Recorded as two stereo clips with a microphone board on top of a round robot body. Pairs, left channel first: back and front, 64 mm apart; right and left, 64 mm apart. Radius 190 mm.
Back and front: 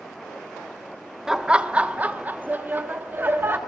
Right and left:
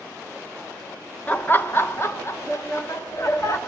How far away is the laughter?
About 1.1 m.